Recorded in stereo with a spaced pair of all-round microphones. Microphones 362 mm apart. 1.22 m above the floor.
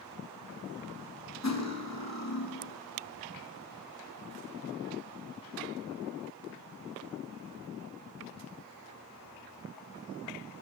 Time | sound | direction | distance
1.4 | cutlery clinking | 45° left (ahead or behind) | 0.8 m